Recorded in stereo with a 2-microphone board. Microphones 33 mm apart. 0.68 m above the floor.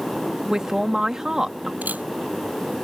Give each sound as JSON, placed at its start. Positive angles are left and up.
{"t": 0.5, "sound": "a man speaking", "side_deg": -20}
{"t": 1.8, "sound": "a camera shutter", "side_deg": -60}